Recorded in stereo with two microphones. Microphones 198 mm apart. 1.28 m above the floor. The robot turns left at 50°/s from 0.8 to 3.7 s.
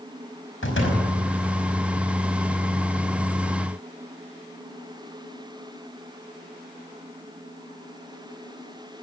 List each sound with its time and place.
0.6 s a door slam: 80° left, 5 m; by 1.1 s 65° left (ahead or behind), 5 m